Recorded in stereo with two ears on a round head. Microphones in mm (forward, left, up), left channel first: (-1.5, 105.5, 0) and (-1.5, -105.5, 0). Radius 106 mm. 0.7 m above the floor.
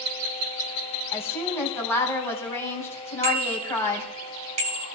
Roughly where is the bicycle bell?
Right.